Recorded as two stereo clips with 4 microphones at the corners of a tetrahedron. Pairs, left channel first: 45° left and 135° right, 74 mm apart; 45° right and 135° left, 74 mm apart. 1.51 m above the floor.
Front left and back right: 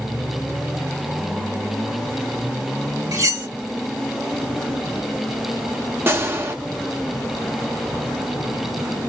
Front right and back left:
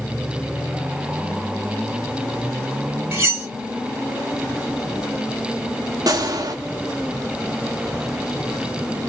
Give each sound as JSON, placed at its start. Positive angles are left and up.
{"t": 3.1, "sound": "cutlery clinking", "azimuth_deg": -165, "distance_m": 2.0}
{"t": 6.1, "sound": "a gunshot", "azimuth_deg": 170, "distance_m": 1.0}